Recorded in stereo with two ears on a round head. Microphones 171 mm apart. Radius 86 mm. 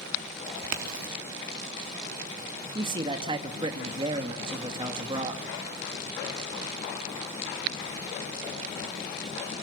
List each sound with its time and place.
0.5 s a crack: 80° right, 3 m
2.8 s a man speaking: 25° right (ahead or behind), 2 m